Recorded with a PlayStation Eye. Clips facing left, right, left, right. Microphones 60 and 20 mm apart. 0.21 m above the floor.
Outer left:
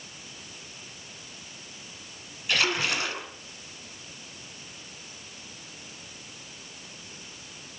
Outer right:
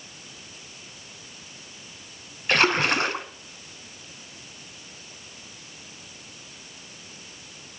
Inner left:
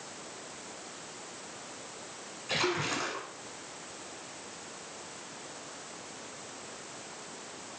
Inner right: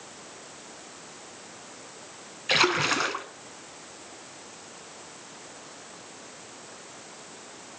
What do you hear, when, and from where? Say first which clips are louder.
2.5 s a splash: outer right 6 dB, inner right 8 dB; 45° right (ahead or behind), 0.7 m